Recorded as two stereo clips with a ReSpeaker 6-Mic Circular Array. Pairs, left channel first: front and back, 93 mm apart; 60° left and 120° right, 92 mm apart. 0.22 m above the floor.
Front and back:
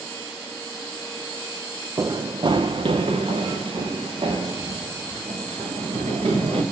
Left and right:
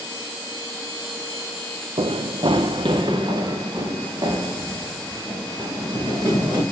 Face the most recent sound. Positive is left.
turn(degrees=-170)